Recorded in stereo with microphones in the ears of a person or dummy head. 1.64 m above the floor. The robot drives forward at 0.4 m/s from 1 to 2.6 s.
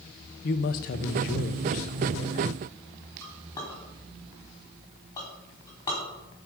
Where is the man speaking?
45° left (ahead or behind), 0.8 m; by 2.5 s 35° left (ahead or behind), 1.0 m.